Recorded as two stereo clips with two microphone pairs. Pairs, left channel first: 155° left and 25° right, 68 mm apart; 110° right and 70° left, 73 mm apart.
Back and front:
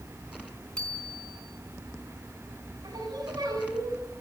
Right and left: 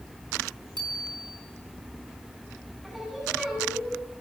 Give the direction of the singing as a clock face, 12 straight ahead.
1 o'clock.